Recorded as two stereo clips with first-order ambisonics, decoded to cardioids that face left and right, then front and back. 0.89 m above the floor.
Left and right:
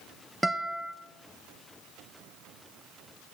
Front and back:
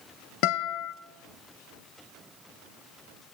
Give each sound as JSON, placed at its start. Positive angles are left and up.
{"t": 0.4, "sound": "a guitar", "azimuth_deg": -5, "distance_m": 0.6}